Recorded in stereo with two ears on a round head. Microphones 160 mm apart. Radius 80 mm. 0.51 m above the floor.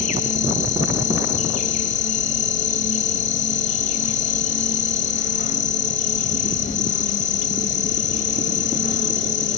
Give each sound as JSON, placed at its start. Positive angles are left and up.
{"t": 0.0, "sound": "an insect", "side_deg": 40, "distance_m": 1.3}